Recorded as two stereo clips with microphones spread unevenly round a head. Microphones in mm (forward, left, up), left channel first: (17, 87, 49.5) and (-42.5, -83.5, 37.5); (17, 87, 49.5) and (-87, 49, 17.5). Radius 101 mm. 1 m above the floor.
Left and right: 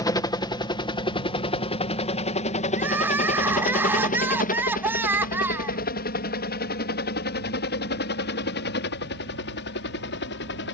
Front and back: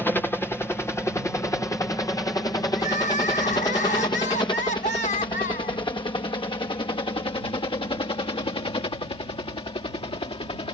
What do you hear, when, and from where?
0.0 s a helicopter: 105° left; by 10.7 s 55° left
2.8 s crying: 30° right